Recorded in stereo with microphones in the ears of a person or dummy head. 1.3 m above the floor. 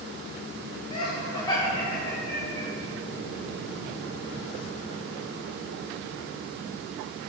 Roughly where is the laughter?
Left.